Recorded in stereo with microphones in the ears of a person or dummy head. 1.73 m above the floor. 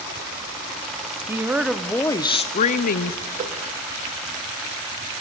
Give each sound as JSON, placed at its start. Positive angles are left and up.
{"t": 1.3, "sound": "a woman speaking", "side_deg": -15, "distance_m": 1.0}
{"t": 3.4, "sound": "a whoosh", "side_deg": -45, "distance_m": 2.5}